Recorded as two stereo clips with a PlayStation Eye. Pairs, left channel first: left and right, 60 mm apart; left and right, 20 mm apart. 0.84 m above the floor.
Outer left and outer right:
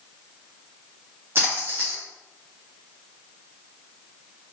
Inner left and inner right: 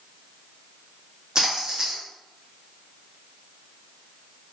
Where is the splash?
40° right (ahead or behind), 0.7 m.